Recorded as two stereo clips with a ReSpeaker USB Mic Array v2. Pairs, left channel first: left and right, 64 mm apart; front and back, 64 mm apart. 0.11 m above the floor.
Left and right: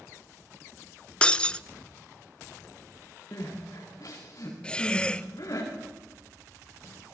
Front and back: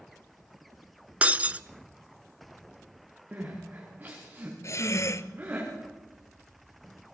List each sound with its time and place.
1.2 s breaking glass: 140° left, 0.6 m
3.3 s crying: 115° left, 7.5 m
4.6 s breathing: 20° left, 0.7 m